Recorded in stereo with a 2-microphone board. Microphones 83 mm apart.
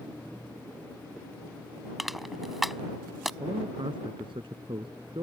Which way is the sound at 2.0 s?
Centre (ahead or behind).